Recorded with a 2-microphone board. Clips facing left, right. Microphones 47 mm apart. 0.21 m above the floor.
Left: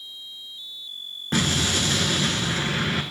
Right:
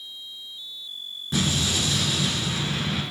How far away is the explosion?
About 0.9 m.